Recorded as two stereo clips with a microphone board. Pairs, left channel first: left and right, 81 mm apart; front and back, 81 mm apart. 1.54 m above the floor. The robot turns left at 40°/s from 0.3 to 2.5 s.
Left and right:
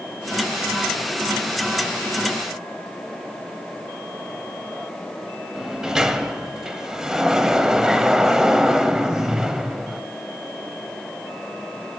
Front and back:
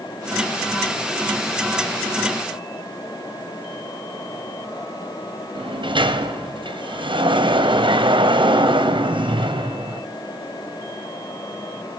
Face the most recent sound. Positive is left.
turn(degrees=-175)